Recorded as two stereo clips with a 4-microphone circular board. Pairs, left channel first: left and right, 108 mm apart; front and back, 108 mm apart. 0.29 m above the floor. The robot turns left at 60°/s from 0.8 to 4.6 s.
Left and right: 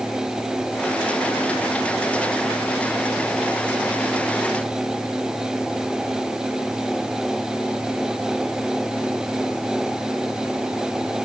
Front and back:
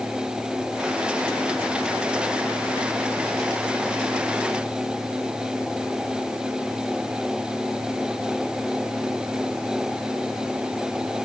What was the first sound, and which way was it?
Only background noise.